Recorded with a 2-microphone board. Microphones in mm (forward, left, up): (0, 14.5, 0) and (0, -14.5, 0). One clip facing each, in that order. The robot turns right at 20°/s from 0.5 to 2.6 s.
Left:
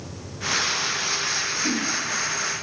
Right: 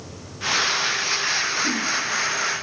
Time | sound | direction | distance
1.6 | a whoosh | 10° left (ahead or behind) | 1.3 m